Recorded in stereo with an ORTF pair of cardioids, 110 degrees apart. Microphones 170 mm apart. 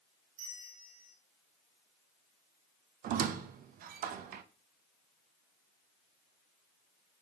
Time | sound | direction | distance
0.4 | a bell | 55° right | 1.8 m
3.0 | a squeak | 60° right | 0.6 m